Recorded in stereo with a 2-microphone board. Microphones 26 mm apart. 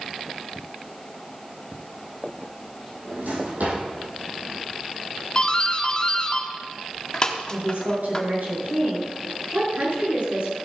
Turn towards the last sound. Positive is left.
turn(degrees=-65)  # may be behind; listen again after turning